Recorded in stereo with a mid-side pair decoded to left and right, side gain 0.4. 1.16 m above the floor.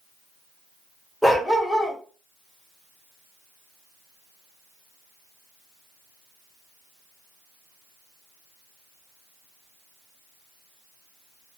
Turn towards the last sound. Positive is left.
turn(degrees=15)